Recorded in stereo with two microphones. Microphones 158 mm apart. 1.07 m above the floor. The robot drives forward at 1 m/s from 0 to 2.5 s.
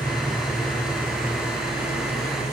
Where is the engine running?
25° left (ahead or behind), 6.5 m; by 2.5 s 40° left (ahead or behind), 4.5 m.